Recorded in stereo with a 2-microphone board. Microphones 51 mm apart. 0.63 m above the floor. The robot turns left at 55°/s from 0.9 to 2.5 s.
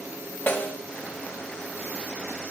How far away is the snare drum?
About 1.8 m.